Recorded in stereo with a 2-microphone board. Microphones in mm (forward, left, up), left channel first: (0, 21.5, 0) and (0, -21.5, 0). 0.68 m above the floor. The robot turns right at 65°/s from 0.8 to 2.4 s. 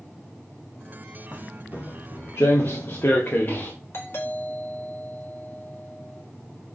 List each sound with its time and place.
1.3 s footsteps: 35° left (ahead or behind), 2 m; by 3.7 s 40° left (ahead or behind), 3.5 m
3.9 s a doorbell: 55° left (ahead or behind), 4 m